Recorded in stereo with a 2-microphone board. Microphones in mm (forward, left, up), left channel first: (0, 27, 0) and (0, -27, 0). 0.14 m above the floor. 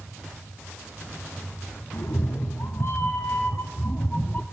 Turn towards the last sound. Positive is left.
turn(degrees=30)  # may be behind; listen again after turning